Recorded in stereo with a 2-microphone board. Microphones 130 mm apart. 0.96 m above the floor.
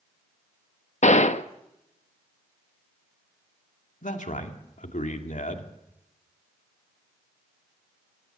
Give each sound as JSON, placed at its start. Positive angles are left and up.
{"t": 1.0, "sound": "a gunshot", "side_deg": 65, "distance_m": 0.9}
{"t": 4.0, "sound": "a man speaking", "side_deg": 75, "distance_m": 2.5}